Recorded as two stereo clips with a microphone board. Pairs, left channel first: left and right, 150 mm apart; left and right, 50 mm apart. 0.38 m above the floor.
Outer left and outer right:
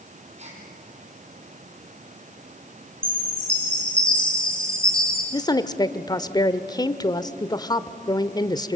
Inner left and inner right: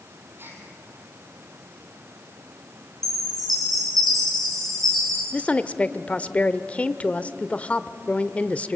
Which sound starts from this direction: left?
A woman speaking, at 5.3 s.